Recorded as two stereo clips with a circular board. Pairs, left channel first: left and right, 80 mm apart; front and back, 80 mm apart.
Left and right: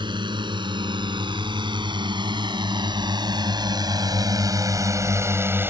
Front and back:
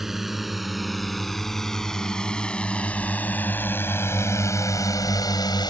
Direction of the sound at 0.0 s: 95° right.